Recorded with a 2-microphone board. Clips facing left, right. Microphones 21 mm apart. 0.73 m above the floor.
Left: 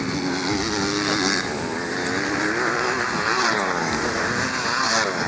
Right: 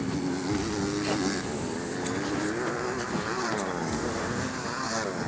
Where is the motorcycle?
55° left (ahead or behind).